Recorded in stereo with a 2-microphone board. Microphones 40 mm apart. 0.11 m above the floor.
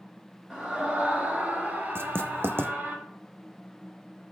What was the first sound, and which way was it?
A scream, 20° right (ahead or behind).